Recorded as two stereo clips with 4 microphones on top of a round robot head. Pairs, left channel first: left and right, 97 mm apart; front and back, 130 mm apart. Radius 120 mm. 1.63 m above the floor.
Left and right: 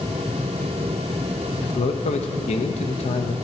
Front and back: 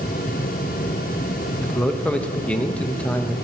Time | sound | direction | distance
1.6 | a man speaking | 80° left | 0.6 m